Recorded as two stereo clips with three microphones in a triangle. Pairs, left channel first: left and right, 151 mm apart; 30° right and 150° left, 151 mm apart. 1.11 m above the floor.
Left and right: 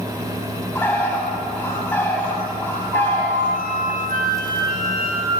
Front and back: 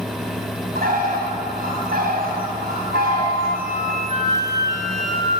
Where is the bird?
165° left, 6 m.